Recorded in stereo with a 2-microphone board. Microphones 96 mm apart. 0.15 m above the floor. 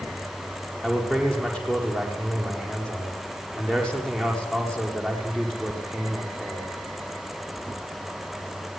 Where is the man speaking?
10° left (ahead or behind), 7.5 m.